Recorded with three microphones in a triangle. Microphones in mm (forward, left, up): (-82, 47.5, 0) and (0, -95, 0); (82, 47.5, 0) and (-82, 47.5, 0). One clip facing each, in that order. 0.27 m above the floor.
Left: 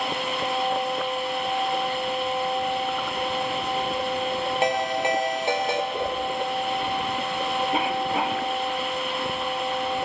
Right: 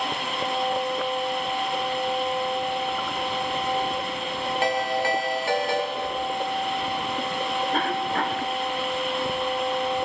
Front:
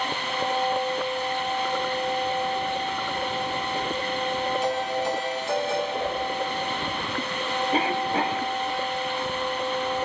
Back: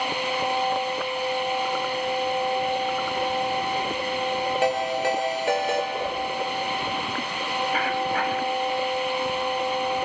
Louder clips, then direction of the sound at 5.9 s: Left 2 dB, front 1 dB; 90° left.